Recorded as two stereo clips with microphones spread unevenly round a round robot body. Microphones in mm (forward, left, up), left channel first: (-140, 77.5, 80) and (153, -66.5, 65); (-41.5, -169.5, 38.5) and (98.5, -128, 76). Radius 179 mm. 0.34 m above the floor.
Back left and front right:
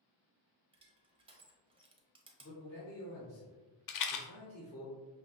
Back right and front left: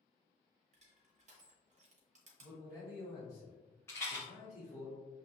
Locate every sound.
0.7 s crushing: 35° left, 0.8 m
2.4 s a man speaking: 160° left, 1.2 m
3.9 s a rattle: 135° left, 0.7 m